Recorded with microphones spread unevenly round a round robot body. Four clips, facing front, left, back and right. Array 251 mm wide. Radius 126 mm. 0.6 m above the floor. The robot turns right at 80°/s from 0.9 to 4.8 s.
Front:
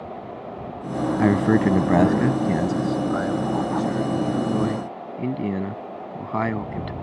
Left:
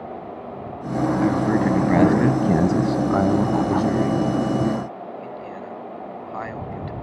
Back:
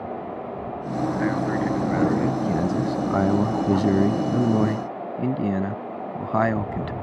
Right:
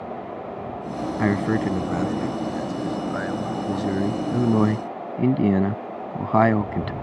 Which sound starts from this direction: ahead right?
A man speaking, at 1.2 s.